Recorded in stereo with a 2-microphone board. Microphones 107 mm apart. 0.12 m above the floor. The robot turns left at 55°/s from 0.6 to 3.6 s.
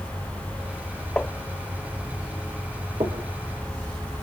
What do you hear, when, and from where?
1.2 s tapping: 10° left (ahead or behind), 0.6 m; by 1.3 s 5° left (ahead or behind), 0.6 m
3.0 s knocking: 50° right (ahead or behind), 3.5 m; by 3.3 s 65° right (ahead or behind), 3.5 m